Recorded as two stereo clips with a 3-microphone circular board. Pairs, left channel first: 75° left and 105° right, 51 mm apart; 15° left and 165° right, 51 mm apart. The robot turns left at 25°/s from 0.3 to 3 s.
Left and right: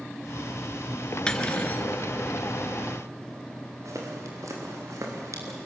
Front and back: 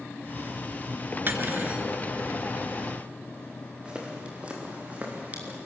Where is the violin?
No violin in this recording.